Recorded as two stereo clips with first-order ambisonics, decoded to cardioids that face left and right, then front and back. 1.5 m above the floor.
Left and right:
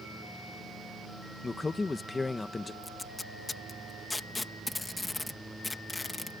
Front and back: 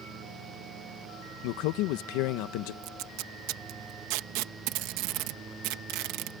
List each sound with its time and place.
1.4 s a man speaking: 10° left
2.8 s tape being pulled: 175° left